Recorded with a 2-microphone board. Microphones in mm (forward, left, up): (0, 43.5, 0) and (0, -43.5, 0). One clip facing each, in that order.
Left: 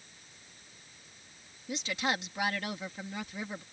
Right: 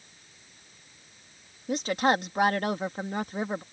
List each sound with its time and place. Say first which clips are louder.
1.7 s a woman speaking: right 9 dB; 45° right (ahead or behind)